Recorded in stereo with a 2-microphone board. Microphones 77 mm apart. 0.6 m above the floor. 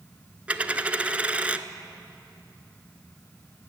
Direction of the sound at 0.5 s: 15° right (ahead or behind).